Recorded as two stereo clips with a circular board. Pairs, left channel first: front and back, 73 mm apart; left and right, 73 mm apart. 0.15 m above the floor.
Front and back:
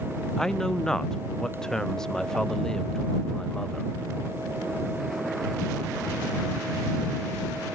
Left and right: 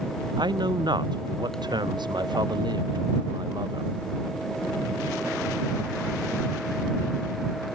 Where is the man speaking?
80° right.